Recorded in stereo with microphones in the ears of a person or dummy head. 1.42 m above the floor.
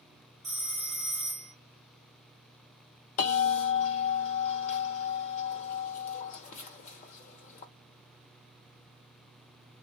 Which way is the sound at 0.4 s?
5° left (ahead or behind).